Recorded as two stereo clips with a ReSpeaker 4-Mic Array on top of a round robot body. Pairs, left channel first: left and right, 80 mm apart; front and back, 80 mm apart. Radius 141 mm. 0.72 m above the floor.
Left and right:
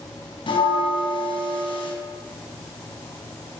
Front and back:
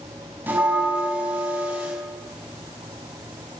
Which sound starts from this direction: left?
A bell, at 0.5 s.